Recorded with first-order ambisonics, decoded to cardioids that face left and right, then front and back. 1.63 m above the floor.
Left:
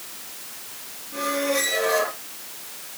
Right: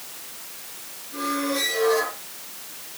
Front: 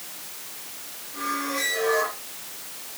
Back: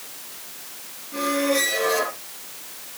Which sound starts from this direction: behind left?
A squeak, at 1.1 s.